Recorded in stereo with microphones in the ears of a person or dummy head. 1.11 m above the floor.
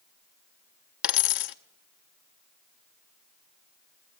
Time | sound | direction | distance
1.0 | a dropped coin | 60° left (ahead or behind) | 0.7 m